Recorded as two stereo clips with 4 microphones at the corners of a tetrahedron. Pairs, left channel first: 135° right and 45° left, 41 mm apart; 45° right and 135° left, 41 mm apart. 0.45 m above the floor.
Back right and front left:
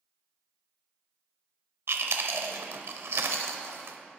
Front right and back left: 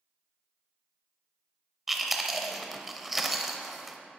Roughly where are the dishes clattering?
No dishes clattering in this recording.